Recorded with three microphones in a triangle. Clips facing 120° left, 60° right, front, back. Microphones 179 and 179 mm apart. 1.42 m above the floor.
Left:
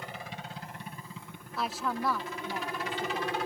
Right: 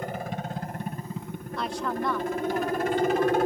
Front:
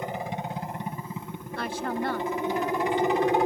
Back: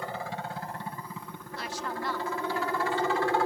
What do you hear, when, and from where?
0.0 s a helicopter: 65° right
1.6 s a woman speaking: 35° left